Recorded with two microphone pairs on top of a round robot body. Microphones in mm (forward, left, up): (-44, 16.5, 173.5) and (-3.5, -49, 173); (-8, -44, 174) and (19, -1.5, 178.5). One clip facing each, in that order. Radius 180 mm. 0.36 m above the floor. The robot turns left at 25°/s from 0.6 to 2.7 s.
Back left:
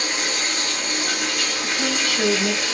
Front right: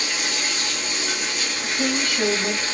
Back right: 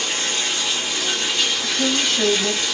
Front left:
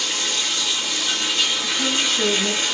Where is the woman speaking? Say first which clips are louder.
Front right 2 dB, back right 1 dB; 150° right, 1.7 m; by 2.6 s 175° right, 1.7 m.